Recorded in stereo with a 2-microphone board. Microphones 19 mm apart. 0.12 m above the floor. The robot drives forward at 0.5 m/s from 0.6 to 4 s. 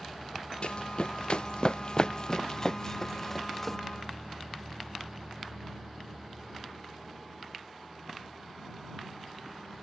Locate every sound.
0.6 s running footsteps: 60° left (ahead or behind); by 3.8 s 10° left (ahead or behind)